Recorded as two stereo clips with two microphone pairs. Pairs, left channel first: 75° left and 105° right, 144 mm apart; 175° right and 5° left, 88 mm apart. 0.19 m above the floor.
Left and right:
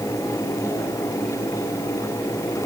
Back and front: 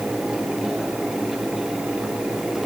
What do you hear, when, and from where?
Only background noise.